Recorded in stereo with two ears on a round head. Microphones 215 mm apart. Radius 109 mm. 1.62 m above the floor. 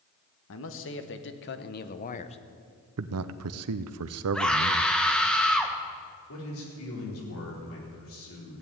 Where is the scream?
5° left (ahead or behind), 1.7 m.